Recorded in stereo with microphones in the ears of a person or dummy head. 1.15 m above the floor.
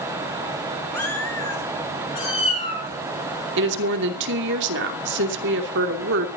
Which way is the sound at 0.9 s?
5° left (ahead or behind).